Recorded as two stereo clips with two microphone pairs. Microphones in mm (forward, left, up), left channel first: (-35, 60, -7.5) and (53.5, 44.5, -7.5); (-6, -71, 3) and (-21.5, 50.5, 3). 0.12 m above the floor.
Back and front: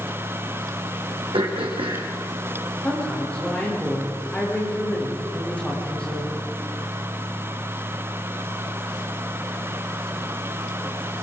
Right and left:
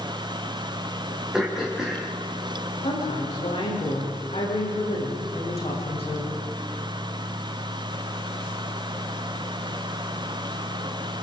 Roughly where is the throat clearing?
Ahead.